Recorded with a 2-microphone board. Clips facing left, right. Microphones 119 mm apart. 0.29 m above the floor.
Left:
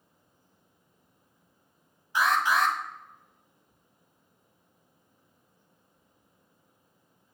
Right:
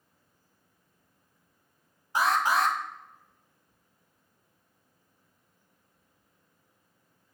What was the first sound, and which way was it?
An alarm, 40° right (ahead or behind).